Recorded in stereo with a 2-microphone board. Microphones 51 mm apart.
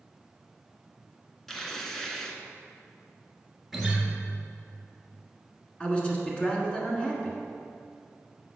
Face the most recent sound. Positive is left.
turn(degrees=20)  # may be behind; listen again after turning